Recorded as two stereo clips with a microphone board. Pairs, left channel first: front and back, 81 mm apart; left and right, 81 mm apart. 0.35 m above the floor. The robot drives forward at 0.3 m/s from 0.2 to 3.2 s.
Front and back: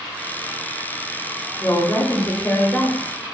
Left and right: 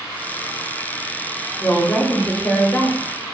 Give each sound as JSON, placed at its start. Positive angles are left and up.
{"t": 1.6, "sound": "a woman speaking", "azimuth_deg": 30, "distance_m": 1.1}